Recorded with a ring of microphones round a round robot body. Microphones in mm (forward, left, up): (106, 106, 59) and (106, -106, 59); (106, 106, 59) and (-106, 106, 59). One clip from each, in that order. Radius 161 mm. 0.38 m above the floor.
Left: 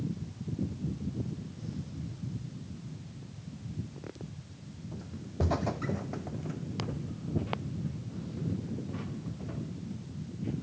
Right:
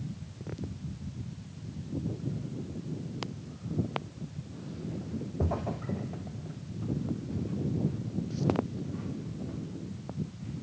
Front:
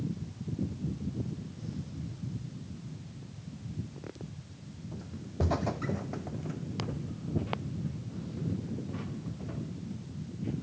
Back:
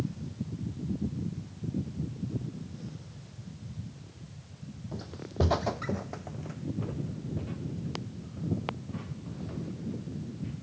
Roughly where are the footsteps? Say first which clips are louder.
Right 1 dB, back 5 dB; behind.